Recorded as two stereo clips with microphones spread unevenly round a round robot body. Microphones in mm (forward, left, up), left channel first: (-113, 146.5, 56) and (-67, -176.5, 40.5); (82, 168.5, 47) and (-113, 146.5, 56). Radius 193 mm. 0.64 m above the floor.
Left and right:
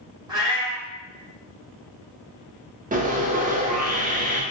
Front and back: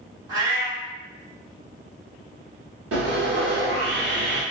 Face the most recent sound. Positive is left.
turn(degrees=-150)